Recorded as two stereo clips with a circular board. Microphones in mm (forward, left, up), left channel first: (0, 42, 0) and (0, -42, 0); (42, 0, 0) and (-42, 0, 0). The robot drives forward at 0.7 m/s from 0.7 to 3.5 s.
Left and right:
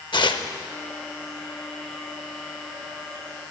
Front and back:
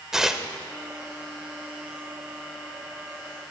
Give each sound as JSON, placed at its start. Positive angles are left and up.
{"t": 0.1, "sound": "tearing paper", "azimuth_deg": 95, "distance_m": 0.7}